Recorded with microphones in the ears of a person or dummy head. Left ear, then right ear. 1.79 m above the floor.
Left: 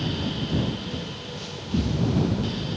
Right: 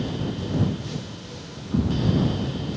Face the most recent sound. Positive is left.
turn(degrees=-65)  # may be behind; listen again after turning